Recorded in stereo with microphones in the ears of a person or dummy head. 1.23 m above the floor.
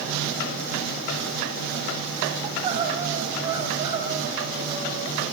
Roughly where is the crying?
Right.